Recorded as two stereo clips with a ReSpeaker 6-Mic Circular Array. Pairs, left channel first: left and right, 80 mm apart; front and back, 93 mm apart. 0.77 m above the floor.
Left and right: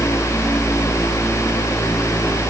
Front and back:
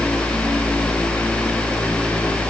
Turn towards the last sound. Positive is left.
No sound to turn to.